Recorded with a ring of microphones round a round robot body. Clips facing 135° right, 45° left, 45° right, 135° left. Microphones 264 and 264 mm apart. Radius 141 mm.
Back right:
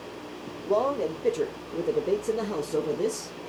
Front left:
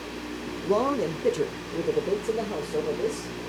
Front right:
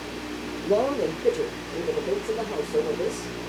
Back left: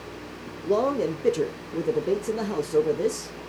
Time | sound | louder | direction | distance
0.6 | a man speaking | front left 1 dB, even | 50° left | 1.0 m